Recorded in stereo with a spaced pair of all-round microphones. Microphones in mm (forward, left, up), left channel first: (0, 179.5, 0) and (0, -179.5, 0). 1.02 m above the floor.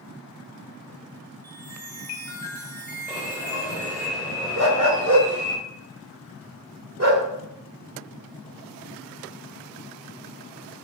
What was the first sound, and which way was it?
A chime, 60° left (ahead or behind).